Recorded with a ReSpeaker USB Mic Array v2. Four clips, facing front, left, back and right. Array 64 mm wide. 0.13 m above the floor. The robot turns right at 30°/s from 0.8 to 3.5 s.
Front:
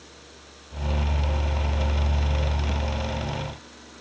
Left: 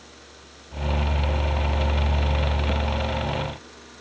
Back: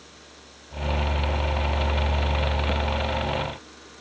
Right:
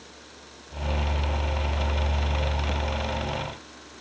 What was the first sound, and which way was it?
Only background noise.